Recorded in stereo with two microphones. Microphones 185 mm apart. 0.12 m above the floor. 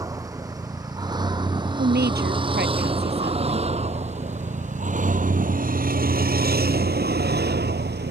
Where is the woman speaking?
60° right (ahead or behind).